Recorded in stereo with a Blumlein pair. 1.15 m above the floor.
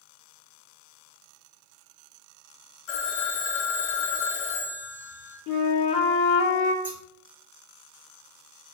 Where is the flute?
40° left, 0.6 m.